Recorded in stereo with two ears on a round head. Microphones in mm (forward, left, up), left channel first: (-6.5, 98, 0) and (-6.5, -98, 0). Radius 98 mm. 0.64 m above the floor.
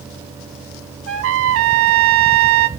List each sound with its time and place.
1.1 s a trumpet: 65° right (ahead or behind), 1.5 m